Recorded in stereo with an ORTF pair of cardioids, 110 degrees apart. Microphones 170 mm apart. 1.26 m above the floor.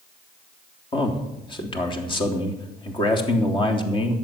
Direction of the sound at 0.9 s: 30° left.